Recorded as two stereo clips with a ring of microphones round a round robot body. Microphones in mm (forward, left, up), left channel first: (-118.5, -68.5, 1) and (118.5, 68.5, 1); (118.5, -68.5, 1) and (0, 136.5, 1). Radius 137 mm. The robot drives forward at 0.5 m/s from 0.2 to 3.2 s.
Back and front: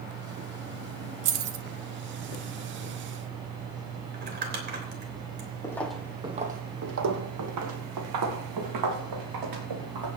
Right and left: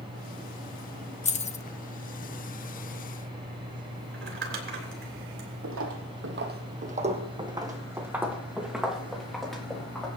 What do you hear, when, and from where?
1.2 s keys jangling: straight ahead, 1.1 m; by 1.6 s 5° left, 0.9 m
4.1 s crumpling: 85° left, 3.5 m
5.6 s footsteps: 135° left, 1.6 m; by 10.1 s 25° left, 5 m